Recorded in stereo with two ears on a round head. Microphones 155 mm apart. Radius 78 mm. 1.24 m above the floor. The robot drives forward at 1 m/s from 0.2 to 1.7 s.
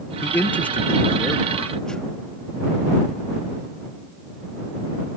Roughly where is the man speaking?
Centre.